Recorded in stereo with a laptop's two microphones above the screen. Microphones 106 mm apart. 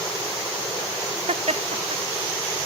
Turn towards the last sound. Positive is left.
turn(degrees=-75)  # may be behind; listen again after turning